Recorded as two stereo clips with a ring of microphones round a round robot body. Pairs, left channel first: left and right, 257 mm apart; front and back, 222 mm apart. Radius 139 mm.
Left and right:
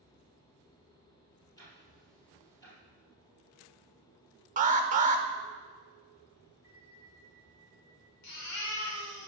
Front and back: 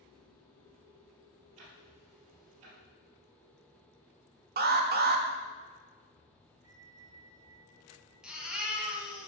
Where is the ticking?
165° left, 3 m.